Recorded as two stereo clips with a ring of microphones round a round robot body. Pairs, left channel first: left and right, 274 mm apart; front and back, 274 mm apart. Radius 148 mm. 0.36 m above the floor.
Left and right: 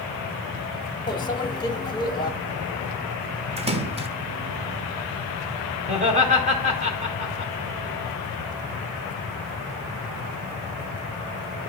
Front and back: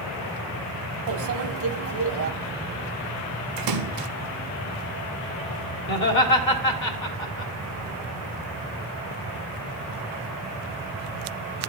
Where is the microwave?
160° left, 1.0 m.